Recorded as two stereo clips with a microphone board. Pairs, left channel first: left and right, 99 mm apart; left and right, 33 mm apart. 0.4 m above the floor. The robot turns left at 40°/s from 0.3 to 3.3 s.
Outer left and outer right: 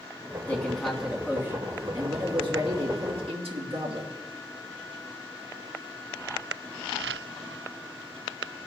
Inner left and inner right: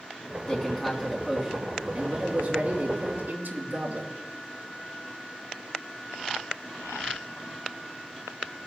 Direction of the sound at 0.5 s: 15° left.